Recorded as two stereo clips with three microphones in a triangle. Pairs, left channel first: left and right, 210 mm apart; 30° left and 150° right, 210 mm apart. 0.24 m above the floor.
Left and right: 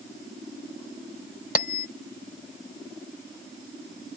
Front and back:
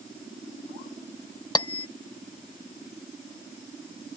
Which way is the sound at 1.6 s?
90° left.